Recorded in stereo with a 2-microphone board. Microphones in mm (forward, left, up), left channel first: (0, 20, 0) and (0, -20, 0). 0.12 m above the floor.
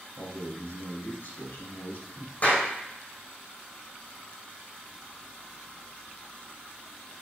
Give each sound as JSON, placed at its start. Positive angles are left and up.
{"t": 0.2, "sound": "a man speaking", "side_deg": 65, "distance_m": 4.0}
{"t": 2.4, "sound": "a clap", "side_deg": 40, "distance_m": 6.0}